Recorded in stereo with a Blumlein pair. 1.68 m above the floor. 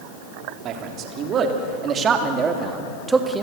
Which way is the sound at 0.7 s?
35° right.